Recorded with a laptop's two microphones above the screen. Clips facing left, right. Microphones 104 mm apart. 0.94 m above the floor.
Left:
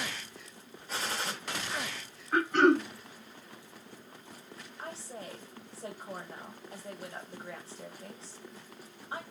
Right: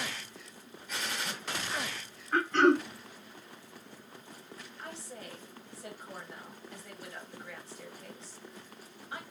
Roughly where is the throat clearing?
Centre.